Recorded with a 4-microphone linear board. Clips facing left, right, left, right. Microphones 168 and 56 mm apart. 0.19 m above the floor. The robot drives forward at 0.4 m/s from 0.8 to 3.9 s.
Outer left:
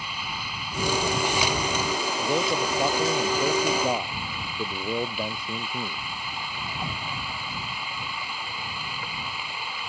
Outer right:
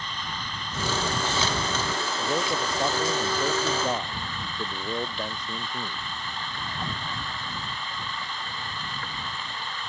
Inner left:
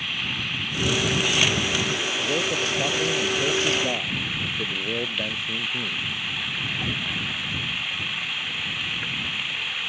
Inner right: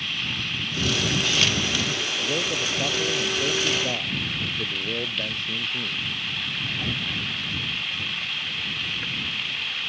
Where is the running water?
10° left (ahead or behind).